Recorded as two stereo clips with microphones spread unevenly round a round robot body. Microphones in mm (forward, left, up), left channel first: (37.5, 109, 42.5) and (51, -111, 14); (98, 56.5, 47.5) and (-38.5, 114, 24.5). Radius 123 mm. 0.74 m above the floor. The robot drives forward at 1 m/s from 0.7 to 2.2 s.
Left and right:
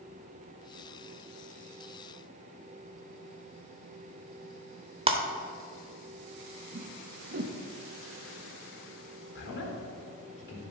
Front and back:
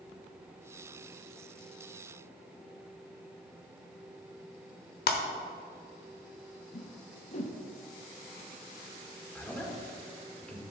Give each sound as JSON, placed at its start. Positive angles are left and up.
{"t": 5.1, "sound": "breaking glass", "azimuth_deg": -20, "distance_m": 1.1}
{"t": 6.7, "sound": "a whoosh", "azimuth_deg": -65, "distance_m": 0.7}
{"t": 9.3, "sound": "a man speaking", "azimuth_deg": 60, "distance_m": 2.5}